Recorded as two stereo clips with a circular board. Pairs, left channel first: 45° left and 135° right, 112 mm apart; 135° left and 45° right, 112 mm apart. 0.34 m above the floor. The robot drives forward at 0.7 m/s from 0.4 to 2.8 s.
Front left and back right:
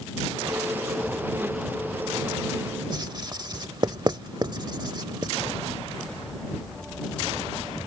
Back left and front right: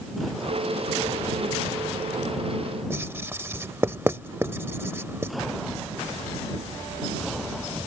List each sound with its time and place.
2.9 s writing: 105° right